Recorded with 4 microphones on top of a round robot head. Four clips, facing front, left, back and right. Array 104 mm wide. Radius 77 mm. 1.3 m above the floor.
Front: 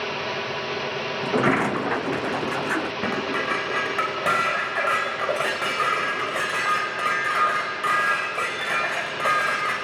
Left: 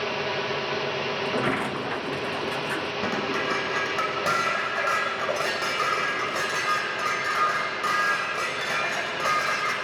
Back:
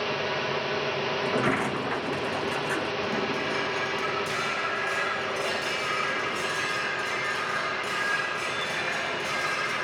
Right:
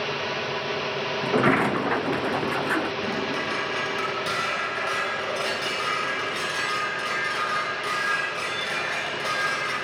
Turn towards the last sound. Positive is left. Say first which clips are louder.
# left 1 dB, front 3 dB
turn(degrees=25)